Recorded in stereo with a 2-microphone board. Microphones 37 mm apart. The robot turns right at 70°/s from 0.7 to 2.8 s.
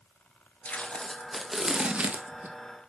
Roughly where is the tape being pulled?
Behind left.